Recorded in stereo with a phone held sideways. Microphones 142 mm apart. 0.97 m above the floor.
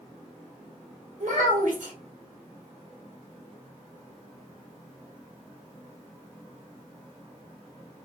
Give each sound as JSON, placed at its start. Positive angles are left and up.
{"t": 1.2, "sound": "a child speaking", "side_deg": -75, "distance_m": 1.2}